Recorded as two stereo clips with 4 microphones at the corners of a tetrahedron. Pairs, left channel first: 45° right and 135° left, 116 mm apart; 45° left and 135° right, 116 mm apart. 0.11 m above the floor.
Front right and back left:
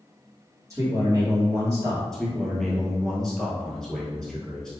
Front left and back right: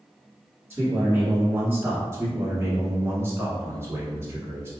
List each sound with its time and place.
0.7 s a man speaking: 165° left, 1.7 m
2.1 s a man speaking: 125° right, 1.2 m